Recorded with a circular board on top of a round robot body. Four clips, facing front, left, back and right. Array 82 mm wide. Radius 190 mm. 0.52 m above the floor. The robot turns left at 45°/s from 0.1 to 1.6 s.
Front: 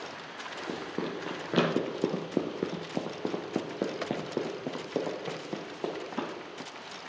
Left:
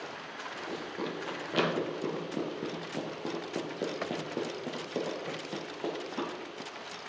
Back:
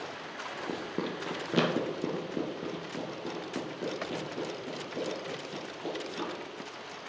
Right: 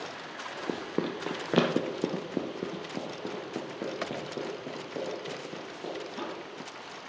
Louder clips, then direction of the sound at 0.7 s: Right 6 dB, front 1 dB; 85° right.